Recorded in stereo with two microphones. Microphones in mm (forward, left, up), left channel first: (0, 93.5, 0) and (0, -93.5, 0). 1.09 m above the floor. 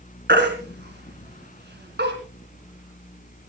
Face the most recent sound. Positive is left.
turn(degrees=-65)  # may be behind; listen again after turning